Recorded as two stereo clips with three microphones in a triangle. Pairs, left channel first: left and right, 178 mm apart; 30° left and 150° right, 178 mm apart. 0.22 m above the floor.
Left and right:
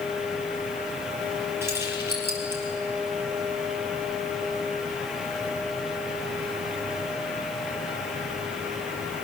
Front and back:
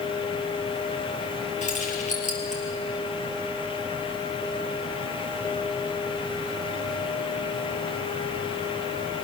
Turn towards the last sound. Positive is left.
turn(degrees=-15)